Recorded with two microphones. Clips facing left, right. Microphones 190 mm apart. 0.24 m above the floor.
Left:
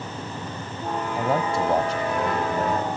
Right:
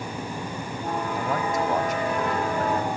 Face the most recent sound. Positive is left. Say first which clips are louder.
# left 4 dB
turn(degrees=30)  # may be behind; listen again after turning